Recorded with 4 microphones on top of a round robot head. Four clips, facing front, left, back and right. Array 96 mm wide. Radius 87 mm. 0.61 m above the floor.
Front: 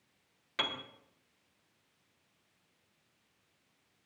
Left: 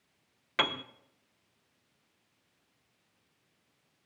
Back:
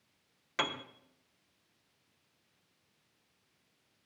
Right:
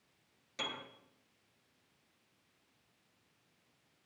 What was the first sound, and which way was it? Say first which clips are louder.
A piano: left 11 dB, back 3 dB; 105° left.